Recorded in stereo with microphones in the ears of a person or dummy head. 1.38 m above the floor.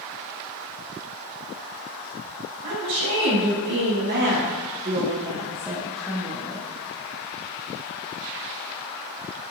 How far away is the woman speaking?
About 1.8 m.